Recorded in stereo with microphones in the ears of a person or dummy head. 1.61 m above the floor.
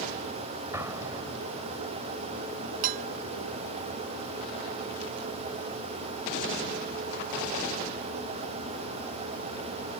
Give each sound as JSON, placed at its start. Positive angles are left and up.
{"t": 0.7, "sound": "an explosion", "side_deg": -15}
{"t": 2.8, "sound": "dishes clattering", "side_deg": -45}